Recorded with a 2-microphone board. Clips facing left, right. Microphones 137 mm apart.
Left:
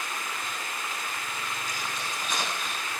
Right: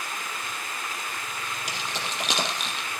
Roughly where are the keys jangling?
Right.